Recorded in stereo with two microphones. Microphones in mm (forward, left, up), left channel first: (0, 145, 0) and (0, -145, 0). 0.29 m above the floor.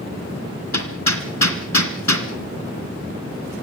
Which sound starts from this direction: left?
Hammering, at 0.7 s.